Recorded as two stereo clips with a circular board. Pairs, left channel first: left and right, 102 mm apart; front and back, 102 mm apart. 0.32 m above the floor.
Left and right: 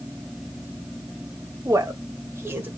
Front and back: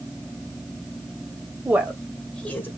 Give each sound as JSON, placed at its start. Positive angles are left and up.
{"t": 1.6, "sound": "a woman speaking", "azimuth_deg": -115, "distance_m": 1.3}